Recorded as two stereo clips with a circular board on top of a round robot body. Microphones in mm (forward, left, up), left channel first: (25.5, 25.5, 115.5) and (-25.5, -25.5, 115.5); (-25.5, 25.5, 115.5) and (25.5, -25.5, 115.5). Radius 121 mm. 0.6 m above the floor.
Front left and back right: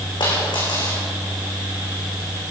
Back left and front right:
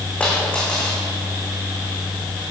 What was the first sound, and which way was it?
A dropped coin, 60° left.